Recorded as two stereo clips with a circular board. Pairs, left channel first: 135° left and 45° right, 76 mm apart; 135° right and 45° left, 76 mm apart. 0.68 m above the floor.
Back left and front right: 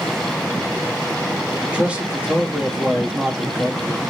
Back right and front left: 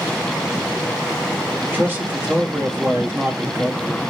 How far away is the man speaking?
About 1.2 m.